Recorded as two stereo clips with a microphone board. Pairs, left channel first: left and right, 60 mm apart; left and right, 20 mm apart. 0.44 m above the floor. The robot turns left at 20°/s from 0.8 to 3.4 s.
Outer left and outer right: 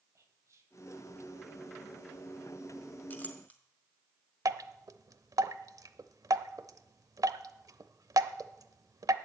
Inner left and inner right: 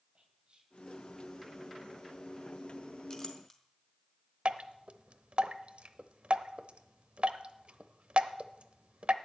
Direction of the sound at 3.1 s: 30° left (ahead or behind).